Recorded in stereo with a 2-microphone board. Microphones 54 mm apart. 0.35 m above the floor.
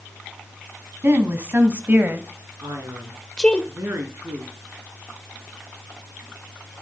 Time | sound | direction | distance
1.0 | a woman speaking | 45° right (ahead or behind) | 2.5 m
2.6 | a man speaking | 65° right (ahead or behind) | 5 m